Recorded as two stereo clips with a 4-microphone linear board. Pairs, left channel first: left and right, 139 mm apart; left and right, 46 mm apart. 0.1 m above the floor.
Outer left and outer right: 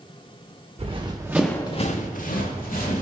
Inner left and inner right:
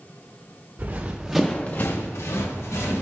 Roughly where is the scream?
I don't hear a scream.